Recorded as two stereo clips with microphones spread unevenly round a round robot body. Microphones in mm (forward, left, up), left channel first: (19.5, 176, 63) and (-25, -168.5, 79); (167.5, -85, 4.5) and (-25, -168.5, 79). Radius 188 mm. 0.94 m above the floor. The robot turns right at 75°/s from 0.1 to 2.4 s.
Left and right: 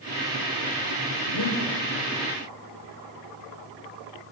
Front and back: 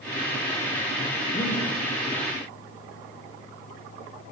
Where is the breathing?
90° left, 5 m; by 1.6 s 120° left, 5 m.